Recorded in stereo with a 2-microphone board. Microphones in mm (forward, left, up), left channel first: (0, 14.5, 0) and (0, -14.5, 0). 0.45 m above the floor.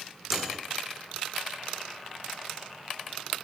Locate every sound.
0.3 s a microwave: 10° right (ahead or behind), 1.1 m